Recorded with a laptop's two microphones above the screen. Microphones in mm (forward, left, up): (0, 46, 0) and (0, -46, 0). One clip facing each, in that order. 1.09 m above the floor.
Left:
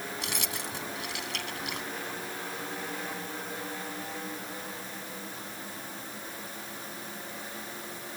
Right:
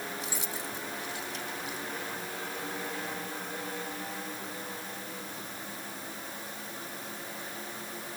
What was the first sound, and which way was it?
Keys jangling, 80° left.